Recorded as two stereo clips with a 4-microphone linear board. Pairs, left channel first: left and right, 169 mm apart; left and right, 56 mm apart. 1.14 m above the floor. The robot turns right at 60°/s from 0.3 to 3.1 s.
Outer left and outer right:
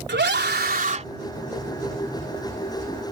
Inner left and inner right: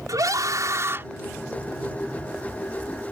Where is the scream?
85° right; by 1.0 s 40° right.